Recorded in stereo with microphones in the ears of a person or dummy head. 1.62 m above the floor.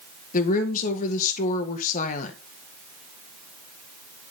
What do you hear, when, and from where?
0.3 s a woman speaking: 45° left (ahead or behind), 1.8 m